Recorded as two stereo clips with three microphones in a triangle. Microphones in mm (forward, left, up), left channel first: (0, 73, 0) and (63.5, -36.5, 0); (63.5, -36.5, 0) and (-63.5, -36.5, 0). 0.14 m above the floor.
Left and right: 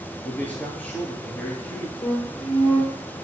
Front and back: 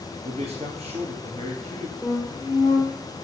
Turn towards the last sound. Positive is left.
turn(degrees=115)